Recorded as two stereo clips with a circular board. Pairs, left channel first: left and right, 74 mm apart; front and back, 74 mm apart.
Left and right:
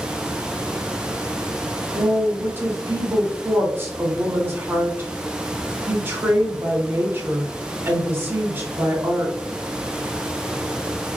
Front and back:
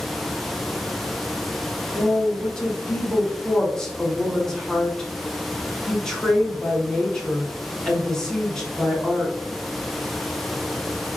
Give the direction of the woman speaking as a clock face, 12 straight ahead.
2 o'clock.